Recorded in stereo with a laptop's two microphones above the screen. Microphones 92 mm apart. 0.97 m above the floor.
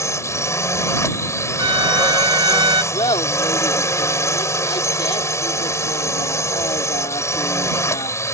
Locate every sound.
0.0 s a drone: 30° left (ahead or behind)
1.6 s a violin: 60° right (ahead or behind)
2.9 s laughter: 75° left (ahead or behind)